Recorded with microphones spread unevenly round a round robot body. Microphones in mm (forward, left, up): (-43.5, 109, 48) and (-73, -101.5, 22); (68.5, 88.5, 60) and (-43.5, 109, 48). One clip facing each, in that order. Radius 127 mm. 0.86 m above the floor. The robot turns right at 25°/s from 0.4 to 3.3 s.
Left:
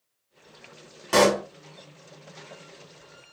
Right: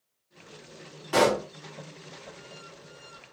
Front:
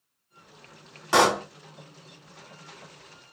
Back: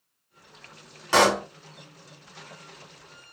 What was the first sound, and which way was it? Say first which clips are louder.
A pop: left 3 dB, back 1 dB; 75° left.